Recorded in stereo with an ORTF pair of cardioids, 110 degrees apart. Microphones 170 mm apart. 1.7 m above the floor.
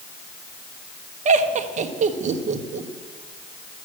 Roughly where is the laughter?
Ahead right.